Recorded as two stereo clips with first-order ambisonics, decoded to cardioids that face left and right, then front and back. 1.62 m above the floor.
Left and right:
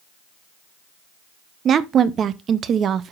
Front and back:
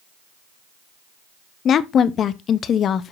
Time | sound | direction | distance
1.6 | a woman speaking | 45° right | 0.5 m